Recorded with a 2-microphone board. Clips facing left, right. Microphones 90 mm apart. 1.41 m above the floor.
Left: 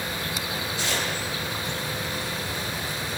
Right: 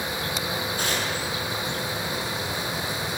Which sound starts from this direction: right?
Tearing paper, at 0.8 s.